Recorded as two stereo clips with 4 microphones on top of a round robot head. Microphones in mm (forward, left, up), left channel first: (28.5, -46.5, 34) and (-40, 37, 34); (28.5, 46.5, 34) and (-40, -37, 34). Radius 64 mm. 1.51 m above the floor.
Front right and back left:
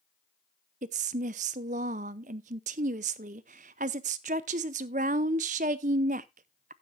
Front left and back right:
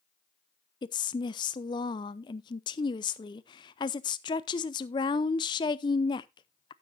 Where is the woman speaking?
100° left, 0.6 m.